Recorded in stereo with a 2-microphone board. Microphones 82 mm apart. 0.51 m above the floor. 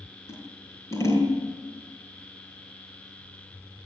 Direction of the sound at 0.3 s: 35° left (ahead or behind).